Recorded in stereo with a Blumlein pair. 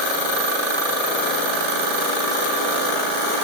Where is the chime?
I don't hear a chime.